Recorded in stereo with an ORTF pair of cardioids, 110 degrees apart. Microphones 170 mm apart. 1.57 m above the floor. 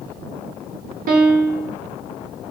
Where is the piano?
55° right, 1.3 m.